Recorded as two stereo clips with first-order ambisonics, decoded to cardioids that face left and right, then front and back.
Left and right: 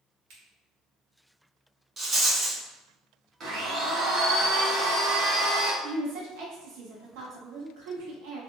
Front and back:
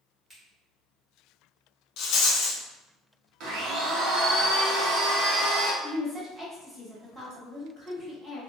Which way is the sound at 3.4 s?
145° right.